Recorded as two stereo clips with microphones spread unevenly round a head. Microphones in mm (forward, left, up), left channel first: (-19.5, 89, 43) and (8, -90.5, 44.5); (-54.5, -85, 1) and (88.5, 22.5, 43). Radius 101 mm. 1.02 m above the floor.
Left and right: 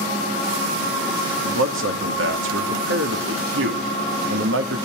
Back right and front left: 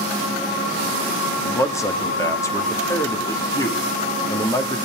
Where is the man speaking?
75° right, 2.5 m.